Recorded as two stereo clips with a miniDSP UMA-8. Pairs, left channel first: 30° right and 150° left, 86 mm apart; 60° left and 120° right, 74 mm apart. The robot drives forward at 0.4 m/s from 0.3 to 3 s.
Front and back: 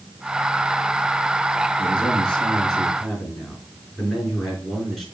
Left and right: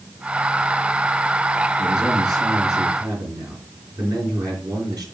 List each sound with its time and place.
1.8 s a man speaking: 110° right, 3 m; by 5.0 s 120° right, 3.5 m